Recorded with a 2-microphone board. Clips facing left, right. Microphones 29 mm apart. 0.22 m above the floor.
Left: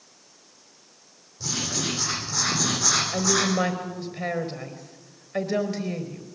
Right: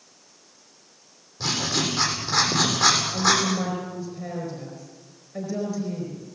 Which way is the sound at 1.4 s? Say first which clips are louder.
Right 4 dB; 85° right.